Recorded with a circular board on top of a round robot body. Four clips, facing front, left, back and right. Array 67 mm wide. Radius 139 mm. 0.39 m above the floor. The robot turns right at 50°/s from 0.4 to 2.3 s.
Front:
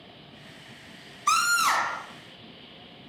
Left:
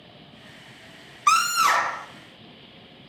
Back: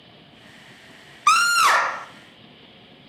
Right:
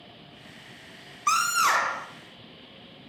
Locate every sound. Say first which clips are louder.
1.3 s a scream: left 4 dB, back 6 dB; 160° left, 2.5 m; by 2.1 s 160° right, 2.5 m